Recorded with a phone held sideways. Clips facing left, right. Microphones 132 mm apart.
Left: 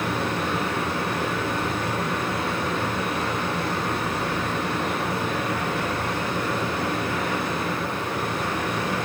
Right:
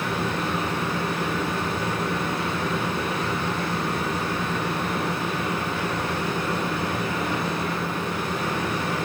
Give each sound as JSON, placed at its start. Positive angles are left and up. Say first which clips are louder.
{"t": 0.0, "sound": "a machine running", "louder": "left 1 dB", "side_deg": 75, "distance_m": 3.0}